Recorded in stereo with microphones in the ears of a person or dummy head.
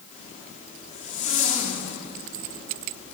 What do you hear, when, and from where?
0.1 s a zipper: 40° left (ahead or behind), 5 m